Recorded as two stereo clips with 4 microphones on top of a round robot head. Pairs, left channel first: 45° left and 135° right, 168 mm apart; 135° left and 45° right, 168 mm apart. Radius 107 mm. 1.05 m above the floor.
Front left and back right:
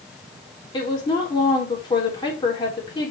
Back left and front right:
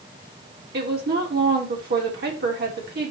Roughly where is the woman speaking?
Ahead.